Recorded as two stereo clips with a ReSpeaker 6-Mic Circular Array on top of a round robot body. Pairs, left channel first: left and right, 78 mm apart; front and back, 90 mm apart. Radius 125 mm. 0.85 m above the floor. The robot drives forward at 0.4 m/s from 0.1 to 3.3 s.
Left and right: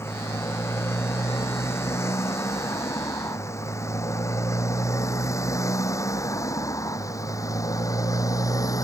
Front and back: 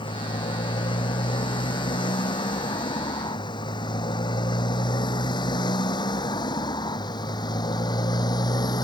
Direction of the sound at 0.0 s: 30° left.